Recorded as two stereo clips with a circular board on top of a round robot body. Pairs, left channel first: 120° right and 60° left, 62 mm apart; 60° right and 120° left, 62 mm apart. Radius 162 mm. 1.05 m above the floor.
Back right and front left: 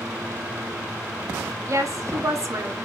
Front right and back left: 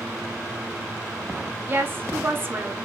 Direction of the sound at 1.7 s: 75° left.